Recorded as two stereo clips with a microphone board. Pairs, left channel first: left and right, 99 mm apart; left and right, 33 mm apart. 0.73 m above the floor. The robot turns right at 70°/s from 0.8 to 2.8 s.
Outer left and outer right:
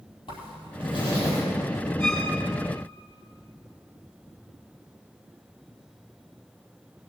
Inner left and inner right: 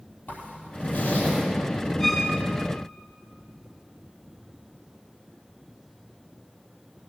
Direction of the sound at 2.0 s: 5° left (ahead or behind).